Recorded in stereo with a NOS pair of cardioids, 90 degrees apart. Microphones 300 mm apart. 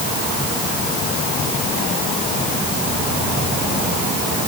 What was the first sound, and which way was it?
Only background noise.